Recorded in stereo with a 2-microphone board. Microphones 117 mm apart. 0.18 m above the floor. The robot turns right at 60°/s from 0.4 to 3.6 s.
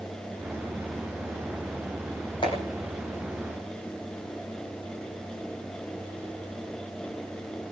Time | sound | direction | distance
2.4 | a clap | 40° left (ahead or behind) | 8 m